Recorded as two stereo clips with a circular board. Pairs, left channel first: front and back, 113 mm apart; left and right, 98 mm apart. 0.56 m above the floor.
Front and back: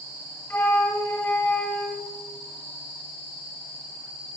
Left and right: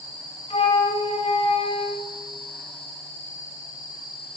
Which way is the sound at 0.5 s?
70° left.